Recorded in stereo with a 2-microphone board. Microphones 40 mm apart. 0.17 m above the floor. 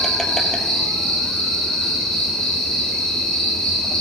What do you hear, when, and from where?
0.0 s an insect: 15° left (ahead or behind), 1.6 m